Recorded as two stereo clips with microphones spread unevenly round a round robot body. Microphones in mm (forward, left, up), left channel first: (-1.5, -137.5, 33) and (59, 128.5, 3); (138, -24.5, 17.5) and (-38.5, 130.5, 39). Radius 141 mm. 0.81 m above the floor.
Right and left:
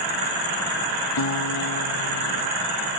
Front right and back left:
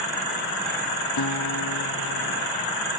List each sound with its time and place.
1.2 s a guitar: 75° right